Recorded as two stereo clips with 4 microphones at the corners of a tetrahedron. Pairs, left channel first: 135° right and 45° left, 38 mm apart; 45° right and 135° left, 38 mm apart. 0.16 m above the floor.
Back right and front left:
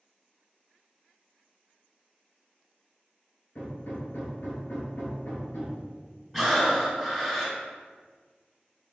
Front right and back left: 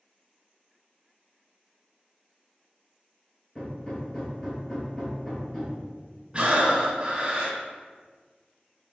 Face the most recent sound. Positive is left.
turn(degrees=140)